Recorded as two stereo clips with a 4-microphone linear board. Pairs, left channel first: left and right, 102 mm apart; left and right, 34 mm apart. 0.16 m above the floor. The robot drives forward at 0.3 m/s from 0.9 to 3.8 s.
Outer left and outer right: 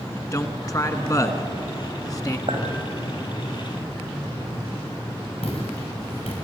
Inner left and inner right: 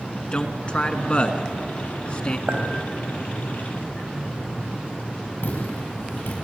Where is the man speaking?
35° left (ahead or behind), 1.6 m.